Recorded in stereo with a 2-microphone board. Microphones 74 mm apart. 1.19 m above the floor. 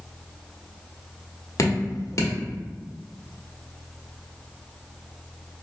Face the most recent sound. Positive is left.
turn(degrees=45)  # may be behind; listen again after turning